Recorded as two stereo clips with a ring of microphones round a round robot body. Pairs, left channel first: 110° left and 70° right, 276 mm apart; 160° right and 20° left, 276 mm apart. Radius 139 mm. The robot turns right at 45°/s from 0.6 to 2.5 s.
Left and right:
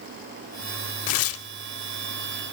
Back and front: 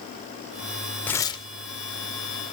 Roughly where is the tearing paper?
Behind left.